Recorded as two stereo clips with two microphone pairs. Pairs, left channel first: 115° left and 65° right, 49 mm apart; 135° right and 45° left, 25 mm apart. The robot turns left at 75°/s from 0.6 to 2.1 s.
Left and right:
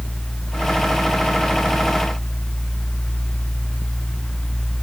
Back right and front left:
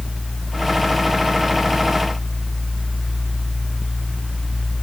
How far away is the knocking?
I don't hear knocking.